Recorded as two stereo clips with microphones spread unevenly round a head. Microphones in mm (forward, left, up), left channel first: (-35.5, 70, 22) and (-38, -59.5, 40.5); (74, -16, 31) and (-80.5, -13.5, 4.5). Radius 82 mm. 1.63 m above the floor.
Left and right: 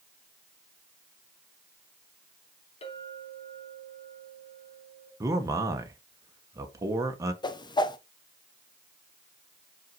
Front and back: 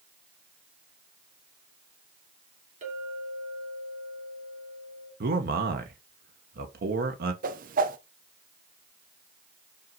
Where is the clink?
130° left, 3.5 m.